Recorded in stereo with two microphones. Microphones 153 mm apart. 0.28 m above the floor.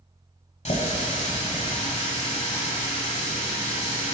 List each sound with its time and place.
0.7 s a running tap: 45° left (ahead or behind), 1.2 m